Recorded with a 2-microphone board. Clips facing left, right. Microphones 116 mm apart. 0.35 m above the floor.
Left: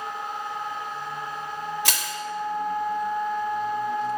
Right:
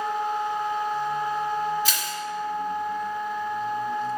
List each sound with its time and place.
1.9 s crushing: 75° left (ahead or behind), 0.7 m